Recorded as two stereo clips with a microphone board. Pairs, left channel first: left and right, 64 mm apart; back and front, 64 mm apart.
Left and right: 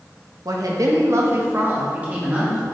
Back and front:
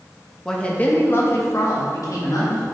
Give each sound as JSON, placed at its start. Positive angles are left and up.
{"t": 0.5, "sound": "a woman speaking", "azimuth_deg": -100, "distance_m": 1.3}